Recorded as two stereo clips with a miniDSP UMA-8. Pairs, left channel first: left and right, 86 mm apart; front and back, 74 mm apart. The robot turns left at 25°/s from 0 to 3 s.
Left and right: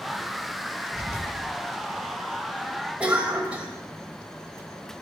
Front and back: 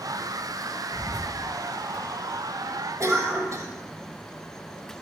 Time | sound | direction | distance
0.9 | whispering | 100° left | 3.5 m
3.0 | a cough | 160° right | 1.2 m